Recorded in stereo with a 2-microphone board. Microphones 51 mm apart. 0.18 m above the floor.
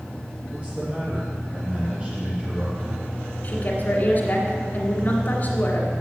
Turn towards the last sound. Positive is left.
turn(degrees=40)  # may be behind; listen again after turning